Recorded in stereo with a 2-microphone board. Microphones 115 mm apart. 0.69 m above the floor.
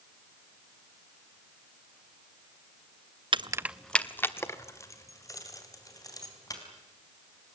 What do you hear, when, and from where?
3.3 s keys jangling: 45° right (ahead or behind), 0.5 m; by 6.6 s 30° left (ahead or behind), 4.5 m